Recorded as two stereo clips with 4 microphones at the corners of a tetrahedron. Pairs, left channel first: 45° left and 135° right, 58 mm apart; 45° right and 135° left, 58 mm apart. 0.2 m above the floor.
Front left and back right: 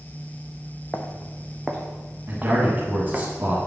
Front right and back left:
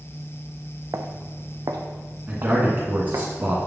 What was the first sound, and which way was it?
Footsteps, 105° left.